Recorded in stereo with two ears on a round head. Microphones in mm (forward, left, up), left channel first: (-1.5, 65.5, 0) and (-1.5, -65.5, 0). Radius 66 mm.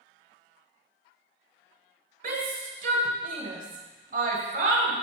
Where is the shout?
55° right (ahead or behind), 1.4 m.